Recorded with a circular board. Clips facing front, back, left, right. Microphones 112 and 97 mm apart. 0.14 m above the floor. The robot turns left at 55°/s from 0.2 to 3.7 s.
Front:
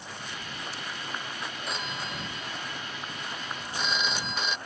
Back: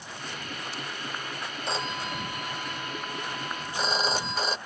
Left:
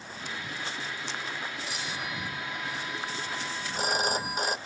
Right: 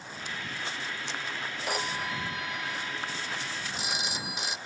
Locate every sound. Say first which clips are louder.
1.7 s a phone ringing: back 6 dB, right 4 dB; 120° right; by 4.6 s 130° left